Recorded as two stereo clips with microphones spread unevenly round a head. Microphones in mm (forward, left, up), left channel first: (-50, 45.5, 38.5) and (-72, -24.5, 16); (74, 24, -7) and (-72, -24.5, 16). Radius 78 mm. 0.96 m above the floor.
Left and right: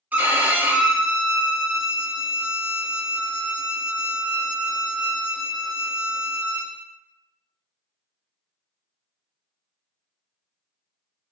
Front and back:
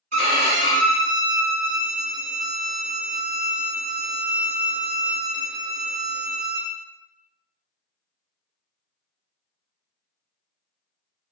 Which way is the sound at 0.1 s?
175° left.